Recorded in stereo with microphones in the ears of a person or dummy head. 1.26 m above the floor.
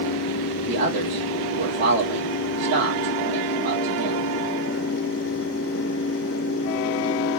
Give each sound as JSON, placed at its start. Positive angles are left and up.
{"t": 0.7, "sound": "a man speaking", "side_deg": -50, "distance_m": 1.3}